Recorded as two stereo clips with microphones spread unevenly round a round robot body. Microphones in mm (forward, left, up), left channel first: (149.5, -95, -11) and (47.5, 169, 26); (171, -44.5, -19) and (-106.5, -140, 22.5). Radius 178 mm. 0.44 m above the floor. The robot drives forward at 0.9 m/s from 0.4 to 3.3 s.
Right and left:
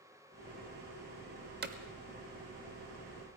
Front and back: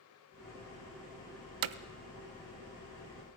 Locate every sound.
1.6 s hammering: 175° left, 0.5 m